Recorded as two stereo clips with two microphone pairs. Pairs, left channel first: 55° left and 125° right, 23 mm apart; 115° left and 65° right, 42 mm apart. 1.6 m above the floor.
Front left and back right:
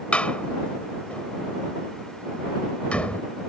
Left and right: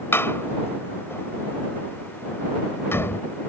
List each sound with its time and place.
0.1 s a door slam: 90° left